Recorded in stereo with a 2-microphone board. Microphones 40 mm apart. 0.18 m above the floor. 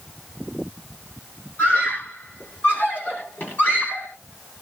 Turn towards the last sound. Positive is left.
turn(degrees=55)  # may be behind; listen again after turning